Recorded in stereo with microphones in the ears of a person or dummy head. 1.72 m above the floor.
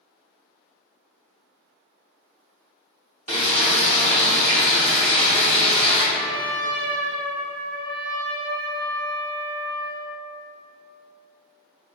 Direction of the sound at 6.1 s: 50° right (ahead or behind).